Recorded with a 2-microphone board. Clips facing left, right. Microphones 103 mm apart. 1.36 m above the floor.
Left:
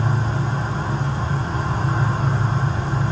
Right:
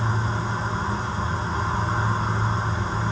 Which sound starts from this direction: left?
An insect, at 0.0 s.